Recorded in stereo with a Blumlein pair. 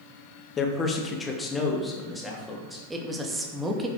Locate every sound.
0.6 s a man speaking: 25° left, 1.9 m; by 2.8 s 5° left, 3.5 m
2.9 s a woman speaking: 10° right, 2 m